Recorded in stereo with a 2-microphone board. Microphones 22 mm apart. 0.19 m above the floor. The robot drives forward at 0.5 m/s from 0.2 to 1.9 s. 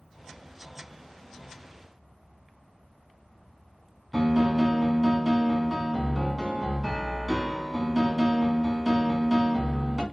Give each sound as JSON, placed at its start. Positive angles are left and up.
{"t": 4.1, "sound": "a piano", "side_deg": -5, "distance_m": 1.0}